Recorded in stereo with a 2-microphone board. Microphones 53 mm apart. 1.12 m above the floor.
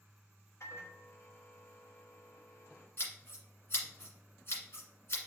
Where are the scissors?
50° left (ahead or behind), 1.9 m.